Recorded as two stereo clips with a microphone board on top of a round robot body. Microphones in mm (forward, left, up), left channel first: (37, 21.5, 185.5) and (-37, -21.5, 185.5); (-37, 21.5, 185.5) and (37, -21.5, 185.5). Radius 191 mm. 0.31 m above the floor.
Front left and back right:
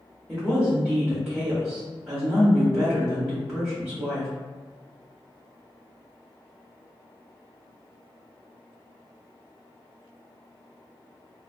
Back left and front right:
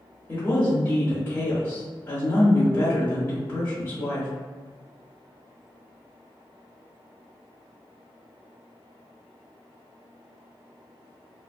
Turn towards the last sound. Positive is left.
turn(degrees=135)